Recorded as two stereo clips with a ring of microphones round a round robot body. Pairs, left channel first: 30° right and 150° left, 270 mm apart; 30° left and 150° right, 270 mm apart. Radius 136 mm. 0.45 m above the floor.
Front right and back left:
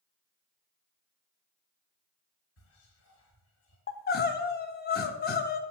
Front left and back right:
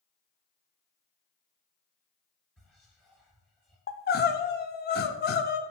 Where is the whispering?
55° right, 1.7 m.